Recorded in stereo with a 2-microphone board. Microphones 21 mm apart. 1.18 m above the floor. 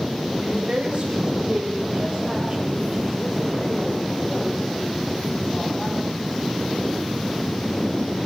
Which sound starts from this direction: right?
A woman speaking, at 0.4 s.